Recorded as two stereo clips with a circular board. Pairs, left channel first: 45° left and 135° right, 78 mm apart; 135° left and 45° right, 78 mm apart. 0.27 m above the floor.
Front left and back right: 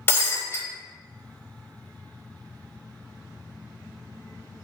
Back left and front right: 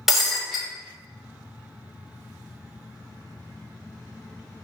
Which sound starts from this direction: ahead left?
Breaking glass, at 0.1 s.